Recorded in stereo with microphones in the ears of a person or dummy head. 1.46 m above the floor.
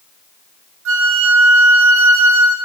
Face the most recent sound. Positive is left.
turn(degrees=-75)  # may be behind; listen again after turning